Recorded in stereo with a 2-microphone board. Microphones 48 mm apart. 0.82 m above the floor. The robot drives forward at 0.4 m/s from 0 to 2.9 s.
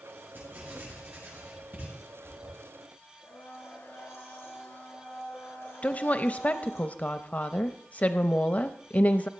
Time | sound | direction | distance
0.3 | writing | 45° right (ahead or behind) | 7 m
3.2 | a blender | 65° left (ahead or behind) | 5 m
5.8 | a woman speaking | 30° left (ahead or behind) | 0.5 m